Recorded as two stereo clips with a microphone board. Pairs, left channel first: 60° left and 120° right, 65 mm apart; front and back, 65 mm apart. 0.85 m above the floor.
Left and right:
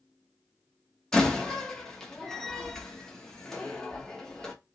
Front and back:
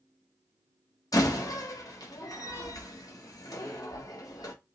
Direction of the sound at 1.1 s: 20° right.